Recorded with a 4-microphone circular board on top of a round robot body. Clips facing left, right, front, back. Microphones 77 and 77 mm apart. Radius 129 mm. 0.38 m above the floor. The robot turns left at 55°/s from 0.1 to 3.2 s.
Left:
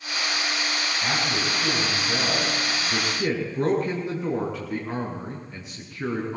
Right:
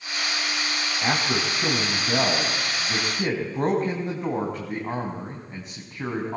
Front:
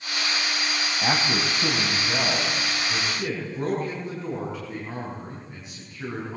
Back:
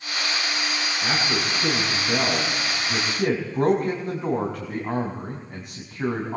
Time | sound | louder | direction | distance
1.0 | a man speaking | right 3 dB, front 1 dB | 20° right | 5 m